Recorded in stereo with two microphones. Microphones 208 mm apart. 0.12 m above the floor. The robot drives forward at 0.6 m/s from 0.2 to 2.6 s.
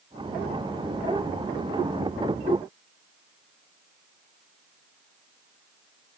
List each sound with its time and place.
Only background noise.